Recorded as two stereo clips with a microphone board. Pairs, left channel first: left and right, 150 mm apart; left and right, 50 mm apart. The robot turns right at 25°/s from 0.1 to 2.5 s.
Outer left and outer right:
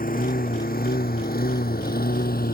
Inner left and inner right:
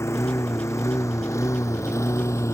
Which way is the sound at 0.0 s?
70° left (ahead or behind).